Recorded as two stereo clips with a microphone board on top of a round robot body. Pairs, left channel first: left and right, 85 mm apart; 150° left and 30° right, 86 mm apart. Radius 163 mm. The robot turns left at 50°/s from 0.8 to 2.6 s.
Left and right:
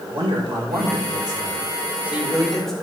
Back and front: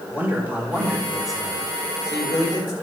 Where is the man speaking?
95° right, 3.5 m; by 2.7 s 175° left, 3.5 m.